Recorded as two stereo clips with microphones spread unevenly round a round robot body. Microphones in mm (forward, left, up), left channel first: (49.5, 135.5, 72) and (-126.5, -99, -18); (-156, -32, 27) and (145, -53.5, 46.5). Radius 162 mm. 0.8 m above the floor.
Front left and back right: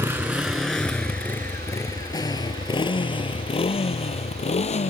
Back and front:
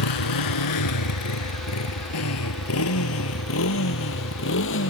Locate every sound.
0.0 s a motorcycle: 150° left; by 4.9 s 120° left